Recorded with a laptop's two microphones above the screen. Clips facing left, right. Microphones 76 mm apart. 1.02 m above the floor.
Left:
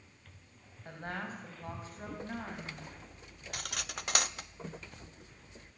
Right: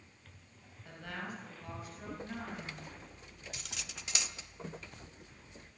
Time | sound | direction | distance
0.8 | a woman speaking | 40° left (ahead or behind) | 5.5 m
3.5 | cutlery clinking | 65° left (ahead or behind) | 0.6 m